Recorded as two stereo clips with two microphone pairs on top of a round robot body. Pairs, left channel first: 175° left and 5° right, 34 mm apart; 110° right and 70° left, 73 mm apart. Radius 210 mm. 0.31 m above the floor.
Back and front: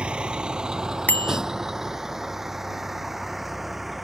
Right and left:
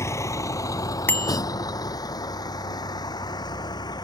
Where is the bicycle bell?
175° right.